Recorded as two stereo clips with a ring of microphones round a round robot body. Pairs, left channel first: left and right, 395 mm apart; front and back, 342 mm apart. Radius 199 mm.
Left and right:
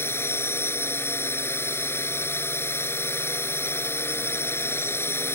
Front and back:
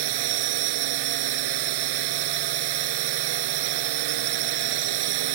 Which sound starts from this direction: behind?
A drone, at 0.0 s.